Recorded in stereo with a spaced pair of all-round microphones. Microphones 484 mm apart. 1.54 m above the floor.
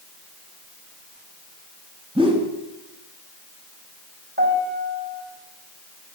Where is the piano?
20° right (ahead or behind), 4 m.